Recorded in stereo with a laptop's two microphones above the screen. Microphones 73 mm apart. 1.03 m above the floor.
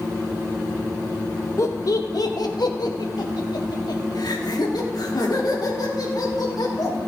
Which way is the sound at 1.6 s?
45° left (ahead or behind).